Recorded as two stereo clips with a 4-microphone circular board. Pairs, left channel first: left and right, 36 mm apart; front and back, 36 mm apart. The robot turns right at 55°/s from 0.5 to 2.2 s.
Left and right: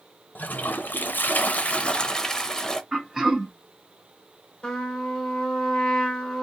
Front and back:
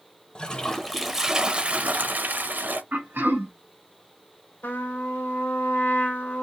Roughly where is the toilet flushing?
Left.